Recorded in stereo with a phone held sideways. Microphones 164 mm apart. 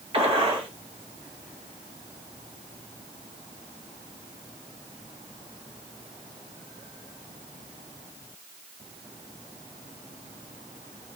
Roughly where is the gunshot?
Right.